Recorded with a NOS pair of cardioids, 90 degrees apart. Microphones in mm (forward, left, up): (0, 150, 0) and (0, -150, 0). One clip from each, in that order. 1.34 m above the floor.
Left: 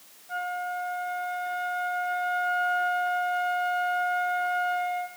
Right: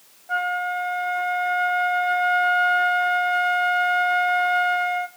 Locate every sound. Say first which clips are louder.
0.3 s a flute: right 7 dB; 55° right, 1.0 m